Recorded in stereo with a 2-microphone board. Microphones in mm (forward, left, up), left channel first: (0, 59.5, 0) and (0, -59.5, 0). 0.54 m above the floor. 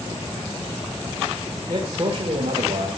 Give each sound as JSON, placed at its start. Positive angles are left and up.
{"t": 1.7, "sound": "a man speaking", "side_deg": -35, "distance_m": 1.8}